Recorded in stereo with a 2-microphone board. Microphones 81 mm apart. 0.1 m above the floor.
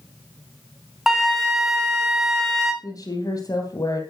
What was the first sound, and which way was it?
A flute, 5° right (ahead or behind).